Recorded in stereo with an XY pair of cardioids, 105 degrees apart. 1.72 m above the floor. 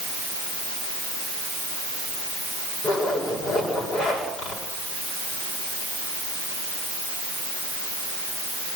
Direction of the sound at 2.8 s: 70° left.